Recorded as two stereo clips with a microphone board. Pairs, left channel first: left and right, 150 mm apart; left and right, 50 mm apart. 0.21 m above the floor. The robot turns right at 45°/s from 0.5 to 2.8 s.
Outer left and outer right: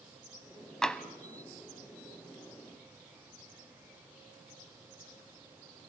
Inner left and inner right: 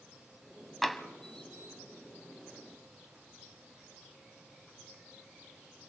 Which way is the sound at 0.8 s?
5° left (ahead or behind).